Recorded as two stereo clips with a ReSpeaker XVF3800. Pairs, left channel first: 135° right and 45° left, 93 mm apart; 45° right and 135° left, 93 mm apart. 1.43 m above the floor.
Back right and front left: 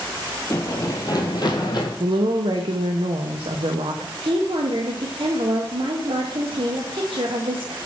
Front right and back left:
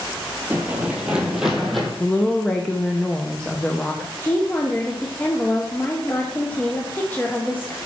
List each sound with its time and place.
0.5 s running footsteps: 170° right, 1.7 m; by 1.9 s 135° right, 2.5 m
2.0 s a woman speaking: 35° left, 0.8 m
4.2 s a woman speaking: 25° left, 1.0 m